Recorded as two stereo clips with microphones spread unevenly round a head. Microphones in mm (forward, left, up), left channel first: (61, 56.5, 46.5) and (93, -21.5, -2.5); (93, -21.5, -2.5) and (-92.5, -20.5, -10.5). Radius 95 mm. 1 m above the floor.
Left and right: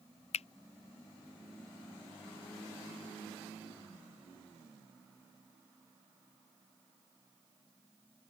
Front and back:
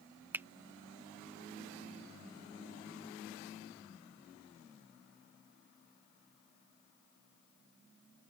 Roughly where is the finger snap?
Left.